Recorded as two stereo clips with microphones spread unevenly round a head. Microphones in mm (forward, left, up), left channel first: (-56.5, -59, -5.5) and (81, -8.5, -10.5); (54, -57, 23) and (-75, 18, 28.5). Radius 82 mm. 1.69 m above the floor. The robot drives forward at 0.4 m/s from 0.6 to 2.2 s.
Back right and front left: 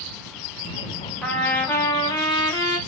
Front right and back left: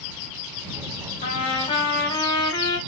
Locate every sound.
1.2 s a trumpet: 75° right, 1.1 m; by 2.8 s 95° right, 1.0 m